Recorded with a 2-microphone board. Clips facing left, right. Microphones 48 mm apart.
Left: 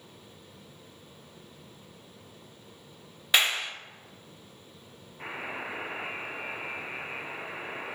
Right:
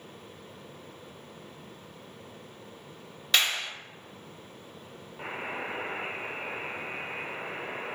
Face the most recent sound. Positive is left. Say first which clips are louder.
# right 1 dB
turn(degrees=-75)  # may be behind; listen again after turning